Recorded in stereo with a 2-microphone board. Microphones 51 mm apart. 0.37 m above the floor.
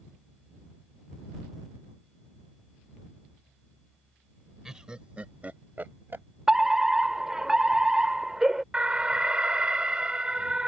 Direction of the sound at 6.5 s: 10° right (ahead or behind).